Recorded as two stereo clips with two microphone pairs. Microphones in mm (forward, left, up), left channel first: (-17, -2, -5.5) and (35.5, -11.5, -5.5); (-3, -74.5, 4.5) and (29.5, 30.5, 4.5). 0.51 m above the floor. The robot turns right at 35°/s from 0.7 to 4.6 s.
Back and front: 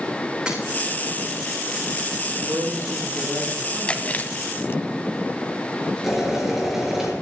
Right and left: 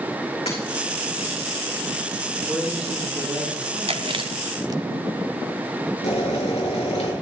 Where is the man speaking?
20° right, 5.5 m; by 4.3 s 40° left, 5.5 m.